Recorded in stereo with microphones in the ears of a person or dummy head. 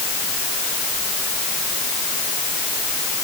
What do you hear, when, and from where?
Only background noise.